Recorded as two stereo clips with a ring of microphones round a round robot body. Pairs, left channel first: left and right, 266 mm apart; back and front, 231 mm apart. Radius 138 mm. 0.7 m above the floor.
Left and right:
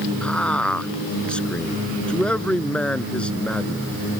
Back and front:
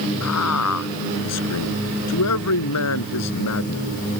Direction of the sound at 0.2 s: 175° left.